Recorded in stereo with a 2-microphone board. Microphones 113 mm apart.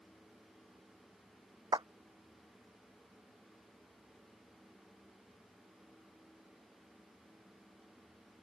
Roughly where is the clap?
Right.